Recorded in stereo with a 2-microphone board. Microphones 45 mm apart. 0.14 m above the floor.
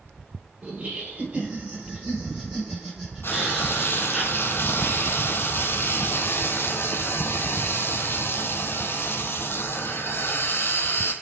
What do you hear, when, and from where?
0.6 s laughter: 35° right (ahead or behind), 3.5 m; by 4.2 s 5° right (ahead or behind), 4.5 m
3.2 s frying: 60° left (ahead or behind), 0.9 m